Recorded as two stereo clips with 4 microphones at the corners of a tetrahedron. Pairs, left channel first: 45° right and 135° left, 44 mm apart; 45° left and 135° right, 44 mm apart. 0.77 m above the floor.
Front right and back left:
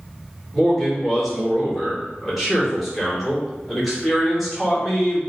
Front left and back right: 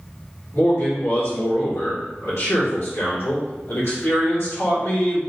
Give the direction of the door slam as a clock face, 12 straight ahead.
I don't hear a door slam.